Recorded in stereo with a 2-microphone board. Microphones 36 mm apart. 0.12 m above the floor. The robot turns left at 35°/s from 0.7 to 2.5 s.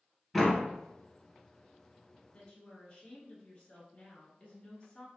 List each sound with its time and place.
0.3 s a door slam: 5° left (ahead or behind), 1.3 m
2.3 s a woman speaking: 30° left (ahead or behind), 1.4 m